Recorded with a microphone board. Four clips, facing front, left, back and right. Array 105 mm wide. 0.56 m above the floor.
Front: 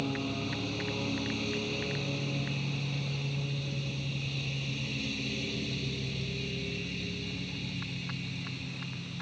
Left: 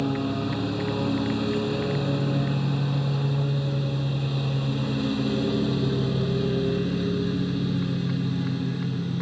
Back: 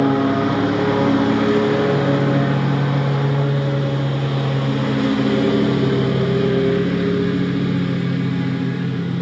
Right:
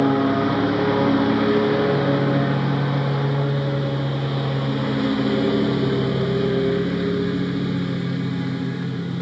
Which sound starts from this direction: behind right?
A lawn mower, at 0.0 s.